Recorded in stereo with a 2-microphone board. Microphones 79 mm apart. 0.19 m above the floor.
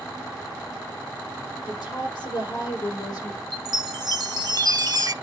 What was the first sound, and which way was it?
A woman speaking, 65° left (ahead or behind).